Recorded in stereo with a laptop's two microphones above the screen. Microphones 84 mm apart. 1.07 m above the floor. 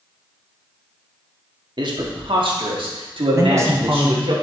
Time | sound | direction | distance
1.8 | a man speaking | 55° right (ahead or behind) | 1.9 m
3.3 | a man speaking | 30° right (ahead or behind) | 1.0 m